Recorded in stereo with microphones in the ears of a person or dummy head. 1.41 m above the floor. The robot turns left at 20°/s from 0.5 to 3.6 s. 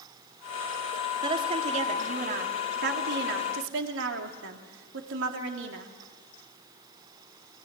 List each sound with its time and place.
1.2 s a woman speaking: 30° right, 3 m; by 5.9 s 75° right, 3 m